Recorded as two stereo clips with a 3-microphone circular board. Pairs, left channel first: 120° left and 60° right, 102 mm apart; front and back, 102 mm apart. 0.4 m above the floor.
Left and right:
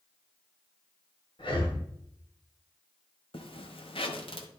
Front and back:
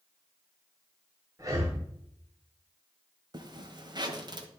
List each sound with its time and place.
1.4 s breathing: 130° left, 2 m
3.3 s a zipper: 140° left, 1.0 m